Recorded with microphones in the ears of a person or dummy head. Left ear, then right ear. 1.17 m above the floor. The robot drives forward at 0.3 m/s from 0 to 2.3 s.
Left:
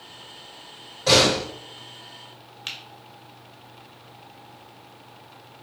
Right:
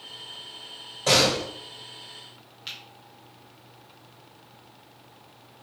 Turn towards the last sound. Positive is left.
turn(degrees=30)  # may be behind; listen again after turning